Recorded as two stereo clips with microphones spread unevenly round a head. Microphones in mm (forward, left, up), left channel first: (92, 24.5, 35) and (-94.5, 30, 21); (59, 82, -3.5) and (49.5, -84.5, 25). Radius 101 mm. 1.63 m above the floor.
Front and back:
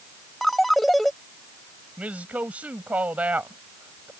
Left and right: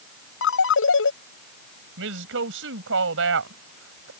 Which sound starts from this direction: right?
A woman speaking, at 2.0 s.